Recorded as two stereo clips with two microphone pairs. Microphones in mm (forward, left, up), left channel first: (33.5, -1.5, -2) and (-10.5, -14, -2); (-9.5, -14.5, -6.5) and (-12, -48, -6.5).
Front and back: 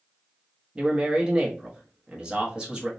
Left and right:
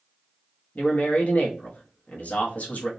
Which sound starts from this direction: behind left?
A man speaking, at 0.8 s.